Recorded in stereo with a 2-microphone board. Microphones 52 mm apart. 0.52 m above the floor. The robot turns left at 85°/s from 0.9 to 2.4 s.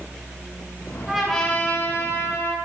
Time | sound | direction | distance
1.1 | a trumpet | 165° right | 8 m